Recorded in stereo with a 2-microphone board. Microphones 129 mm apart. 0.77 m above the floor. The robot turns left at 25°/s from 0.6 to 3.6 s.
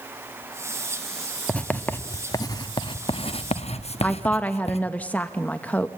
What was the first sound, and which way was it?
Writing, 5° left (ahead or behind).